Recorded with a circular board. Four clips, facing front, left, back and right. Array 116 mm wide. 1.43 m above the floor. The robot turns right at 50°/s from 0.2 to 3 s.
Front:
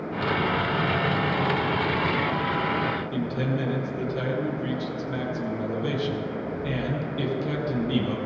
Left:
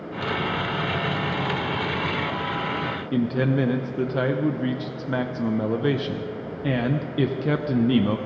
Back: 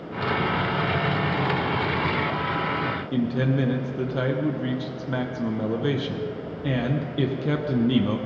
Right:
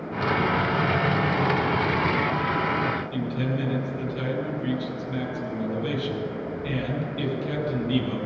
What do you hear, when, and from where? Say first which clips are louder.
3.1 s a man speaking: left 5 dB, back 3 dB; 110° left, 0.9 m